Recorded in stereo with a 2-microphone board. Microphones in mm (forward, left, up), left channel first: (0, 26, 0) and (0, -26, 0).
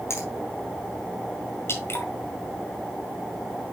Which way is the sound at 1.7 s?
55° left (ahead or behind).